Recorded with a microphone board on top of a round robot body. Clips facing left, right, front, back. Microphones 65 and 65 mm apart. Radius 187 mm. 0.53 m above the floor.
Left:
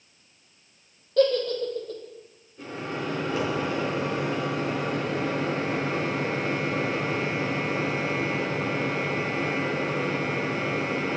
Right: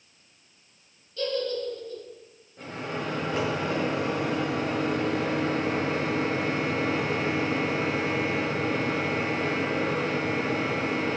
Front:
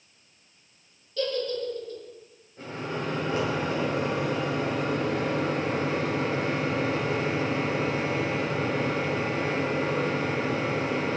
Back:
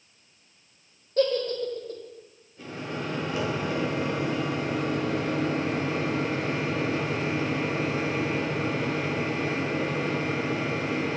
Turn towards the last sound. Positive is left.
turn(degrees=-50)